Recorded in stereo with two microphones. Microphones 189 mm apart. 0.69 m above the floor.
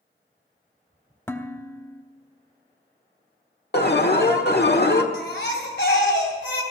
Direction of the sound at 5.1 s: 70° left (ahead or behind).